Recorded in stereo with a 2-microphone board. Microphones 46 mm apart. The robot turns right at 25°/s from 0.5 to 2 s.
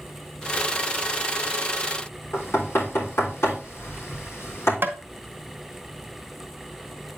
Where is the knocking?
80° left, 3.5 m.